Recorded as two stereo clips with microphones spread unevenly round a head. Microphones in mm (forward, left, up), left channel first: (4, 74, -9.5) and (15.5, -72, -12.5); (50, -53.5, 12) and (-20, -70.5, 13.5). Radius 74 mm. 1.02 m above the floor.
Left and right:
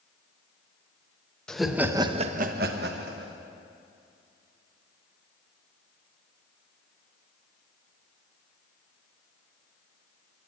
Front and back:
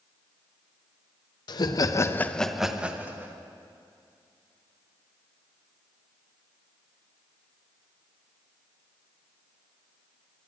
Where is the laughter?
10° left, 1.1 m; by 3.4 s 105° right, 1.6 m.